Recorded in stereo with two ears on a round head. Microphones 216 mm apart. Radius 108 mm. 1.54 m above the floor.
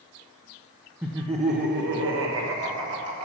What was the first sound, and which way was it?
Laughter, 5° right (ahead or behind).